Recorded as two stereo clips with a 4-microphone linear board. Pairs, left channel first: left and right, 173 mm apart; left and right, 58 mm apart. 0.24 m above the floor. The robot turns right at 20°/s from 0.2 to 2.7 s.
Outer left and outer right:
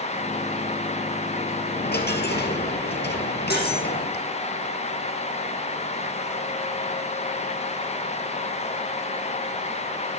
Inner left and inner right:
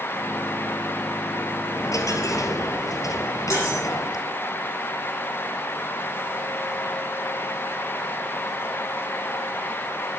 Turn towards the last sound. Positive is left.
turn(degrees=70)  # may be behind; listen again after turning